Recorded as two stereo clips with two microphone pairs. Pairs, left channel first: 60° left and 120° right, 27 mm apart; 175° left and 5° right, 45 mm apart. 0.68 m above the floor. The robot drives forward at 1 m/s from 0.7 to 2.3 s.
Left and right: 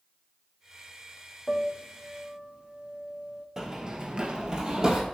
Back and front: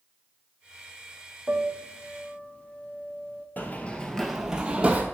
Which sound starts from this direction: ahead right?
A piano, at 1.5 s.